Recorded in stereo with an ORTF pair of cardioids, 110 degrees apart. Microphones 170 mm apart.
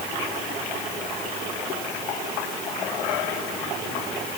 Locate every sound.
Only background noise.